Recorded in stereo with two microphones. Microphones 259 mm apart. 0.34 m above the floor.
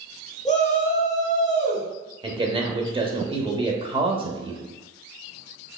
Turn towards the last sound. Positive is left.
turn(degrees=-20)  # may be behind; listen again after turning